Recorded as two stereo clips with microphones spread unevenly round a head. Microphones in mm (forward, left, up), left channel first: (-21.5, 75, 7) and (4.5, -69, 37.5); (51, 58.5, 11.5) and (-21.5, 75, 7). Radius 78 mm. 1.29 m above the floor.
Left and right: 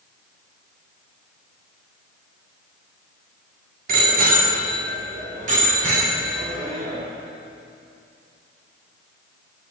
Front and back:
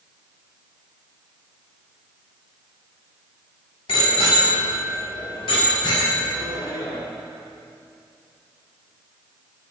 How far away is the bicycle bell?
About 2 m.